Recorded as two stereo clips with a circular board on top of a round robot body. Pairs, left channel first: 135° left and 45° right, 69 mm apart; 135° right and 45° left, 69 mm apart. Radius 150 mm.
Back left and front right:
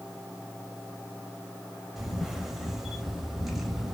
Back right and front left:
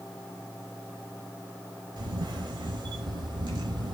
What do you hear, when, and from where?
2.0 s a camera shutter: 40° left, 0.6 m